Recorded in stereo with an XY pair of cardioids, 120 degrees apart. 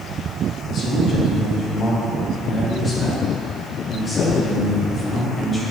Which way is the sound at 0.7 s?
50° left.